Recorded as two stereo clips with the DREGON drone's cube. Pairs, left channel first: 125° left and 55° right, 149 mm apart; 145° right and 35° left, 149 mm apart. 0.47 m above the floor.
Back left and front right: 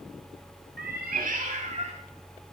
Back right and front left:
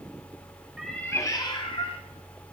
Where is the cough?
No cough in this recording.